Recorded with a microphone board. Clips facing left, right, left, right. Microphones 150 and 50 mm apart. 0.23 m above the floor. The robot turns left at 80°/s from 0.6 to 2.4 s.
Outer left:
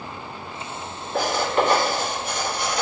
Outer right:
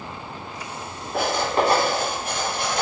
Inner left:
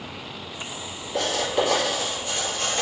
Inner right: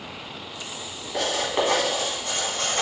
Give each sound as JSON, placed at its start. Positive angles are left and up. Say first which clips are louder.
{"t": 1.1, "sound": "writing", "louder": "even, inner left 1 dB", "side_deg": -5, "distance_m": 1.3}